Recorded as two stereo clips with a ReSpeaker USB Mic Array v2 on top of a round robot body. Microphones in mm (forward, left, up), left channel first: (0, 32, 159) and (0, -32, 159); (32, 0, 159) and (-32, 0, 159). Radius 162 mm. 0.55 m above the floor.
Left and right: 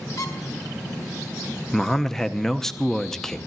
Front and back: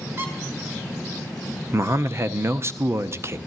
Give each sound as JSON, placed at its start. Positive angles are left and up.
{"t": 0.2, "sound": "a squeak", "azimuth_deg": 130, "distance_m": 2.0}
{"t": 1.7, "sound": "a man speaking", "azimuth_deg": 170, "distance_m": 0.9}